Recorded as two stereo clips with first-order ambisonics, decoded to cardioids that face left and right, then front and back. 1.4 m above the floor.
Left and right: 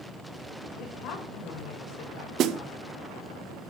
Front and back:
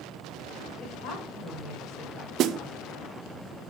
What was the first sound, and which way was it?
A woman speaking, 45° left.